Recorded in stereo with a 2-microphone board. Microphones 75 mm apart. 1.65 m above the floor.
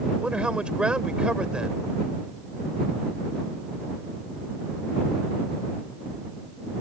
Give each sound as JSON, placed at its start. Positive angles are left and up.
{"t": 0.2, "sound": "a man speaking", "side_deg": -15}